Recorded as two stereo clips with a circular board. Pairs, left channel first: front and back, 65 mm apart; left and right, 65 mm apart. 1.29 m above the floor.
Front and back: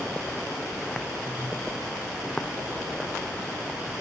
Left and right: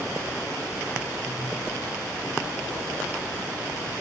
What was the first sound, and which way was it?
Only background noise.